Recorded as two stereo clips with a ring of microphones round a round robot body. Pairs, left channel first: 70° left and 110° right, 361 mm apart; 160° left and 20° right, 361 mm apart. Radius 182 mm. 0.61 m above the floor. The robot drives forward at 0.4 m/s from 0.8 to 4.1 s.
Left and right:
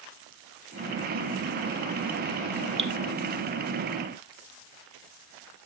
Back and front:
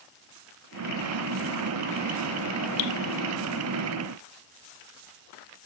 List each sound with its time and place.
2.8 s dripping: 175° left, 1.4 m